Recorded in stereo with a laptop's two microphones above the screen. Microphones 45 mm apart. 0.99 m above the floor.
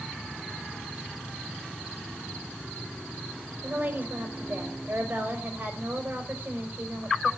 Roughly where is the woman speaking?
Right.